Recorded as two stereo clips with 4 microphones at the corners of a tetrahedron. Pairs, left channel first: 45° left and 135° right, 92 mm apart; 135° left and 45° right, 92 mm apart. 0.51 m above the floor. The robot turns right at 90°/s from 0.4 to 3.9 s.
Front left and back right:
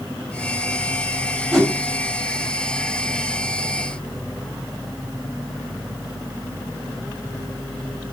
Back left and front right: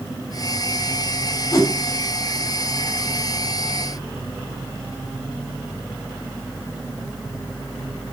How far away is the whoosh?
About 1.1 m.